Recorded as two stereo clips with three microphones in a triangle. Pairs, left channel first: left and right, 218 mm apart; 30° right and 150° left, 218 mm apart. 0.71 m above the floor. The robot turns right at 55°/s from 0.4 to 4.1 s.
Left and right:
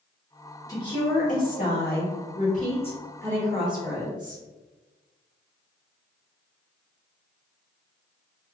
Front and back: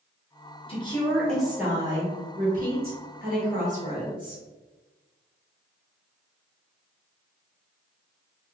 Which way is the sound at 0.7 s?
20° left.